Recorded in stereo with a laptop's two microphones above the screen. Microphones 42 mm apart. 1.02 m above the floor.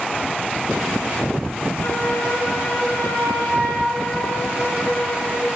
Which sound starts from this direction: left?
A flute, at 1.8 s.